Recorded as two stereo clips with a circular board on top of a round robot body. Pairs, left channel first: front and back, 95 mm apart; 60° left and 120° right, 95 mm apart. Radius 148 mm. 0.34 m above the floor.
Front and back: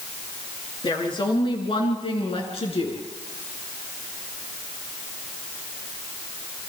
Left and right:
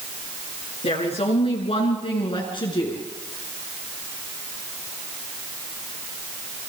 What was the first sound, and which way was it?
A woman speaking, 45° left.